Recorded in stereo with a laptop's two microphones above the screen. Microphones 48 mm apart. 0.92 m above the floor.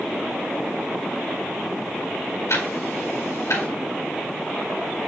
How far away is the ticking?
About 4.5 m.